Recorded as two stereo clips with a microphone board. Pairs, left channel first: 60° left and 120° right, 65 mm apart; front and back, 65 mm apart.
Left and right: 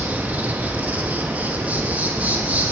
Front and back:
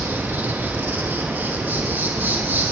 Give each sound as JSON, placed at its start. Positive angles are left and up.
{"t": 0.0, "sound": "an insect", "azimuth_deg": -155, "distance_m": 1.2}